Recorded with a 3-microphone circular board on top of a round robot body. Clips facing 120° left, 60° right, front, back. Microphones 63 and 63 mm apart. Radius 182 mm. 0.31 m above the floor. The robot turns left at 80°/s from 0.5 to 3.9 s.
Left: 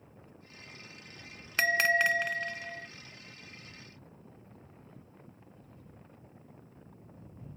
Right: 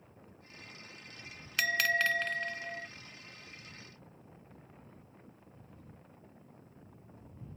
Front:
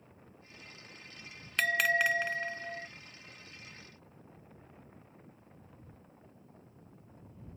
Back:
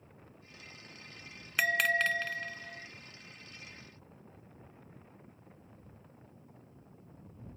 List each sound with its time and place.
1.6 s a bell: 105° left; by 2.9 s straight ahead